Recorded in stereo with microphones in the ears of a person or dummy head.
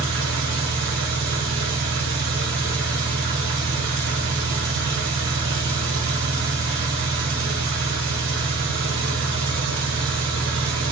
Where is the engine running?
65° right (ahead or behind), 0.8 m.